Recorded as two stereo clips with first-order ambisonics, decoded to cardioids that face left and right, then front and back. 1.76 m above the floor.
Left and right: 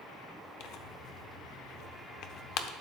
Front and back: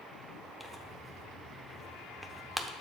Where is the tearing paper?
95° left, 0.6 m.